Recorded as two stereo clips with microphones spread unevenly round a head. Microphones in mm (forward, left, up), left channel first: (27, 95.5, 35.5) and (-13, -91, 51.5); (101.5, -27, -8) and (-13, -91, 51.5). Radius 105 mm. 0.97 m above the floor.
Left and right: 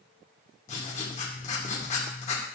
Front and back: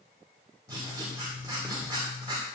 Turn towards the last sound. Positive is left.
turn(degrees=135)